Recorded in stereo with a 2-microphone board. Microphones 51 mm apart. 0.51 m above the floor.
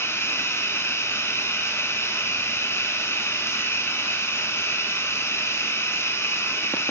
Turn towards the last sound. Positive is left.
turn(degrees=55)  # may be behind; listen again after turning